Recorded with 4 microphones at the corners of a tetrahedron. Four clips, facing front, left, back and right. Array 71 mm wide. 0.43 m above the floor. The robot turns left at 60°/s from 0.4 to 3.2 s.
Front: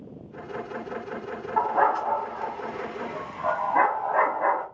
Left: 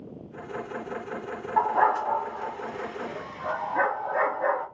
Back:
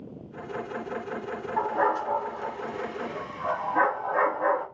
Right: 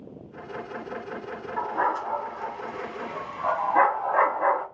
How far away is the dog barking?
About 1.2 m.